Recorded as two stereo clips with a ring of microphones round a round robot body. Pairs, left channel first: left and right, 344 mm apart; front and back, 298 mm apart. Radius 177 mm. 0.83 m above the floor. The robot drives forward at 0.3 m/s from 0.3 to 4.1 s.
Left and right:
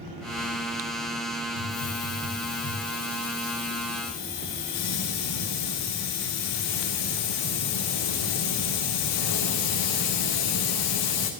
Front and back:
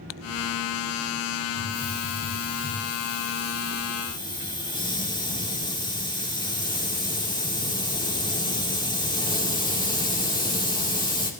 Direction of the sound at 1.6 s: 55° left.